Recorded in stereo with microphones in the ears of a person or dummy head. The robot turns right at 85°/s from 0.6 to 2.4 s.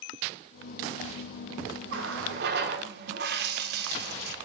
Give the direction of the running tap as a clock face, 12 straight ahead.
4 o'clock.